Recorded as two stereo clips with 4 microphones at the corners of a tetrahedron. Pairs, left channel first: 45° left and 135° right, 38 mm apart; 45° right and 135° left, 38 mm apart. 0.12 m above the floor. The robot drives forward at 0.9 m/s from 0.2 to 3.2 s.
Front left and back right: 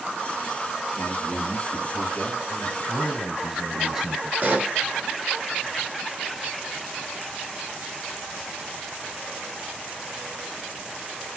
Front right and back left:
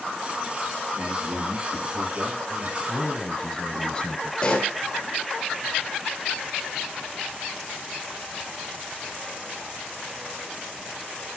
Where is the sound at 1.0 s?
85° left, 4 m; by 2.8 s 110° left, 4.5 m.